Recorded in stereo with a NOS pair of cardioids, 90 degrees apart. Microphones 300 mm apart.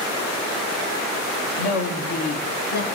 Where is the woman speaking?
55° left, 2.5 m.